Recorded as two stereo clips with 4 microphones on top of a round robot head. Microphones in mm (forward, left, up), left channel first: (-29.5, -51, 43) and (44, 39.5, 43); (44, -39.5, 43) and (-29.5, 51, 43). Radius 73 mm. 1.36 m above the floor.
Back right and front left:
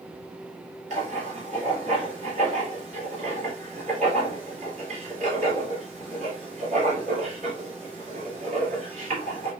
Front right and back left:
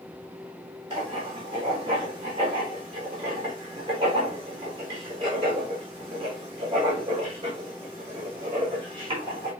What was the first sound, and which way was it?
Writing, 80° left.